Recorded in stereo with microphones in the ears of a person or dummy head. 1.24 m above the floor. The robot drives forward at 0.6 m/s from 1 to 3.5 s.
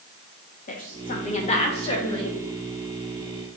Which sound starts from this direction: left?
A woman speaking, at 0.7 s.